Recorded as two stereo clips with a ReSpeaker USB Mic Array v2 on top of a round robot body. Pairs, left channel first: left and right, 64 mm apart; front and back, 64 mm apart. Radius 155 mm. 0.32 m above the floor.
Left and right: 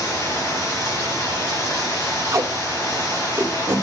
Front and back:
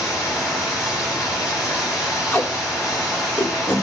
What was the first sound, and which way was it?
Running water, 45° left.